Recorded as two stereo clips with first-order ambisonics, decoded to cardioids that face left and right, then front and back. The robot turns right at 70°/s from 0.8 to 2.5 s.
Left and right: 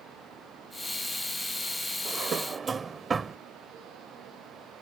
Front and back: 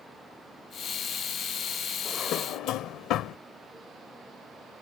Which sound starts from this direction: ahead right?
A drawer, at 2.0 s.